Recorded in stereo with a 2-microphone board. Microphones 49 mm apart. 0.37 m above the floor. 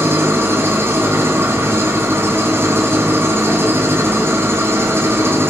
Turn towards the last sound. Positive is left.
turn(degrees=-55)  # may be behind; listen again after turning